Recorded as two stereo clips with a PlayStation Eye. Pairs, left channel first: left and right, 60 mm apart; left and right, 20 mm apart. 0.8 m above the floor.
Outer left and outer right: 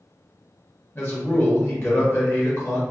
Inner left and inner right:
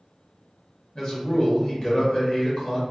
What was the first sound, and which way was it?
A man speaking, 45° left (ahead or behind).